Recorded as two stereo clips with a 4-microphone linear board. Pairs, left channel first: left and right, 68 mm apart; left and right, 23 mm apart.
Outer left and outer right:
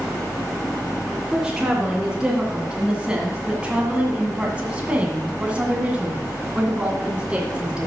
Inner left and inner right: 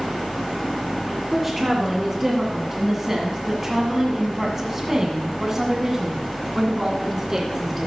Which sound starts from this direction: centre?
A woman speaking, at 1.3 s.